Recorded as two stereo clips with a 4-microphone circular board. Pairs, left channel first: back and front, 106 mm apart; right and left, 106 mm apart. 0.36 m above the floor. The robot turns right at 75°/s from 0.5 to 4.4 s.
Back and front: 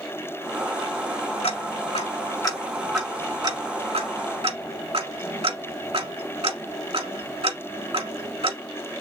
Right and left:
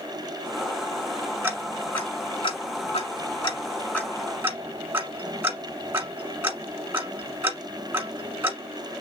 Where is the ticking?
160° left, 1.3 m; by 8.6 s 25° left, 1.3 m.